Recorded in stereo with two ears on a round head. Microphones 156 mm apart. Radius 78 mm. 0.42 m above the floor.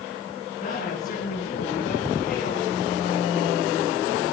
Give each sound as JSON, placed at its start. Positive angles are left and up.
{"t": 0.6, "sound": "a woman speaking", "side_deg": 45, "distance_m": 5.0}